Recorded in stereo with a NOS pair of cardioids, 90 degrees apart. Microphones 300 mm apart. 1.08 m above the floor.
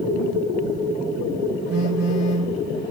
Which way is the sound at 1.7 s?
60° left.